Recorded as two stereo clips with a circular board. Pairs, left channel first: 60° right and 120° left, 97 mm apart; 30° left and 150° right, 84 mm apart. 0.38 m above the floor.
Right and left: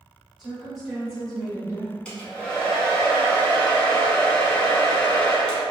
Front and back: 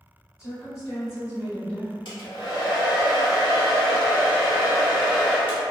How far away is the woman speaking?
About 1.9 m.